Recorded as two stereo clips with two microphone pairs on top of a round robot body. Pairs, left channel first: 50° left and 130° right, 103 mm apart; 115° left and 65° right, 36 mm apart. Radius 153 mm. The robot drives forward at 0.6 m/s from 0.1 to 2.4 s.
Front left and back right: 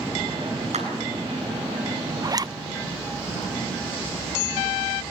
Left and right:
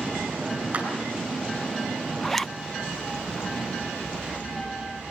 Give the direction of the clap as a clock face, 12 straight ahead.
4 o'clock.